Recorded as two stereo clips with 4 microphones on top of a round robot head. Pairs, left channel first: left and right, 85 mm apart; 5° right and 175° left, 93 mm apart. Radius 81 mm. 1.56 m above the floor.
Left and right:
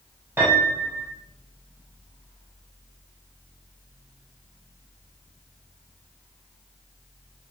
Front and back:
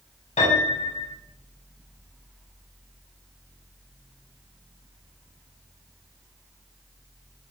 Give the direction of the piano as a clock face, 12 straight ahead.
1 o'clock.